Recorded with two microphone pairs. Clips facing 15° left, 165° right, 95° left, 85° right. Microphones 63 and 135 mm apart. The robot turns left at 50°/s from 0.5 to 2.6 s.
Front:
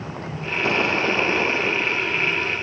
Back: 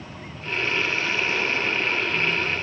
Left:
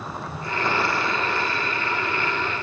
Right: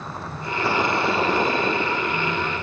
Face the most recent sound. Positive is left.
turn(degrees=-100)